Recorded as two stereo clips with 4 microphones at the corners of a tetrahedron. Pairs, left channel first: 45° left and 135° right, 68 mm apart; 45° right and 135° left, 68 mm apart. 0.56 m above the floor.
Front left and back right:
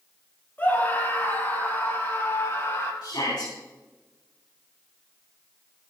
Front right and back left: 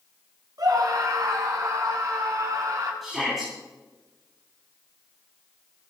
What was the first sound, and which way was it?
A scream, 110° left.